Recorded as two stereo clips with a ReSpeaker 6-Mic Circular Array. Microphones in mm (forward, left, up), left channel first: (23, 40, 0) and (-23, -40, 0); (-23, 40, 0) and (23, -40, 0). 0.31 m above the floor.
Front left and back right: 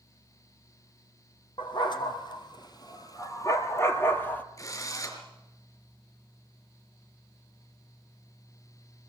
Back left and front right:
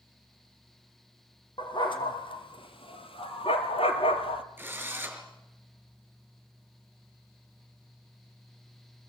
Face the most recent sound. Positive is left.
turn(degrees=10)